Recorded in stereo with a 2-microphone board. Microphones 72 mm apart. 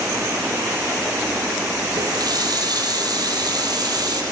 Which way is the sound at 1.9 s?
65° right (ahead or behind).